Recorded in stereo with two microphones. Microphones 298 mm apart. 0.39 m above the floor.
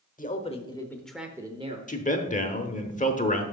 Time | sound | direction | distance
0.2 | a man speaking | 25° left (ahead or behind) | 1.0 m
1.9 | a man speaking | 25° left (ahead or behind) | 0.9 m